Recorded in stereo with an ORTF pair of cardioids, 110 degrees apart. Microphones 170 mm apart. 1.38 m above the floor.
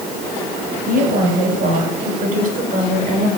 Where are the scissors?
I don't hear scissors.